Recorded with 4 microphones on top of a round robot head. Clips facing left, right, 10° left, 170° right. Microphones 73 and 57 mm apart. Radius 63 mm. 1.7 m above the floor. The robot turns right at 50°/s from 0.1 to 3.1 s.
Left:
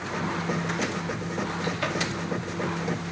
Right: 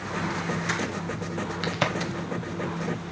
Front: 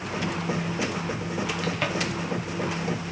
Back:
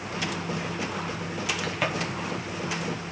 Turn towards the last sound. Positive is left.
turn(degrees=-15)